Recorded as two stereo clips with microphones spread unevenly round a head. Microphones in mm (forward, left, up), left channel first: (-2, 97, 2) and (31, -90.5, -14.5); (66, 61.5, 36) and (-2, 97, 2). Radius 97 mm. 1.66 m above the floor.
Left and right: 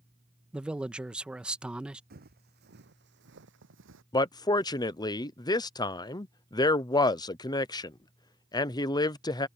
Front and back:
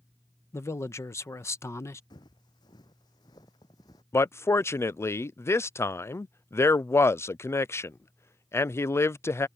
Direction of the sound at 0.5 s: 5° left.